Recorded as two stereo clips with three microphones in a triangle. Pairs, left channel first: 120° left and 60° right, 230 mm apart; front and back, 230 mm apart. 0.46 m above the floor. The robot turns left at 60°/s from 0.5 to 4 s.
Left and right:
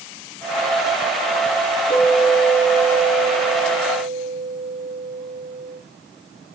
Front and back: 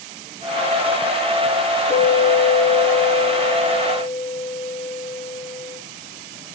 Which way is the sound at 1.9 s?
35° right.